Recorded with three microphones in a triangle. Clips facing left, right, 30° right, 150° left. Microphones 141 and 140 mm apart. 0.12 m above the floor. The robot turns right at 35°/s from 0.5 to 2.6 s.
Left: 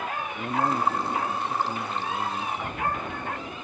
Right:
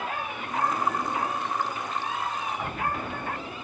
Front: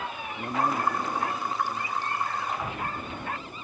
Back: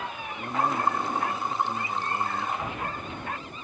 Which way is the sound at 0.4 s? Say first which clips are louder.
Left 3 dB, even; 45° left.